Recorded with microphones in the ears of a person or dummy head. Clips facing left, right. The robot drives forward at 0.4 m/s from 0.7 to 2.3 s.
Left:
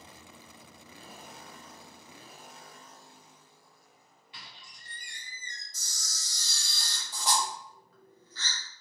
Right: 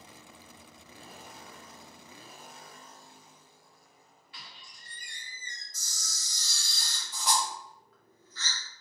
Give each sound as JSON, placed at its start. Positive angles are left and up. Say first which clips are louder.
{"t": 4.3, "sound": "a squeak", "louder": "even", "side_deg": 20, "distance_m": 1.6}
{"t": 5.7, "sound": "a camera shutter", "louder": "even", "side_deg": 25, "distance_m": 0.8}